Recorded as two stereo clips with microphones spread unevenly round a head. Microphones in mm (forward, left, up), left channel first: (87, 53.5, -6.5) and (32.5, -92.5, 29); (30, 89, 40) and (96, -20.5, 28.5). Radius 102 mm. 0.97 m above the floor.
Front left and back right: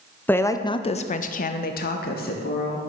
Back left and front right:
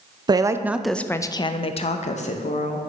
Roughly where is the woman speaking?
Ahead.